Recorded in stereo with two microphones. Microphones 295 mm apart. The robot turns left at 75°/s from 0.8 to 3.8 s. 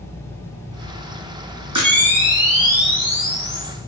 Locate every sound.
1.8 s a camera shutter: 100° right, 4 m; by 3.7 s 115° left, 4 m